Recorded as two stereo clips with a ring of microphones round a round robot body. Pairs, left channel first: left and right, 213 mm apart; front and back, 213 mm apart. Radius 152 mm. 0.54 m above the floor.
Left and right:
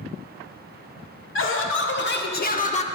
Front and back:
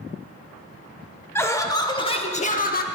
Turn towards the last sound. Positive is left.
turn(degrees=35)